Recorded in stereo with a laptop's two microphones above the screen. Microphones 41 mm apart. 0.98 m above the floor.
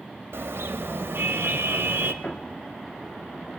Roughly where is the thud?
Left.